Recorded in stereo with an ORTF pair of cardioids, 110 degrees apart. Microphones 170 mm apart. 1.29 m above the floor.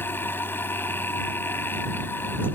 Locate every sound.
0.0 s a machine running: 15° left